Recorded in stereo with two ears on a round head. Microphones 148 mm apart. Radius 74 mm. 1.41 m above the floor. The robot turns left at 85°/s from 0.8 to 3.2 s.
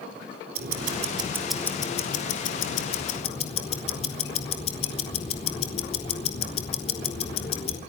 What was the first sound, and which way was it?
Ticking, 120° right.